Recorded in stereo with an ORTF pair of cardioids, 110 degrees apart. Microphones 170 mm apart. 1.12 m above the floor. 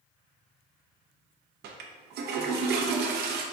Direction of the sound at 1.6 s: 70° right.